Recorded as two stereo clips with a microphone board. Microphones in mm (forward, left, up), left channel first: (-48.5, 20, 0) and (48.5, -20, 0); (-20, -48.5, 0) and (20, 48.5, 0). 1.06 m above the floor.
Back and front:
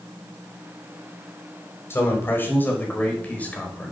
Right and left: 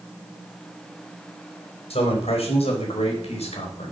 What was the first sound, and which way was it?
A man speaking, 135° right.